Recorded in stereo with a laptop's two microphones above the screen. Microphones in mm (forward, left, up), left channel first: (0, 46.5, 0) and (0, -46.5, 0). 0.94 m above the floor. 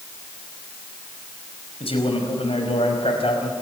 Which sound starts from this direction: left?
A man speaking, at 1.8 s.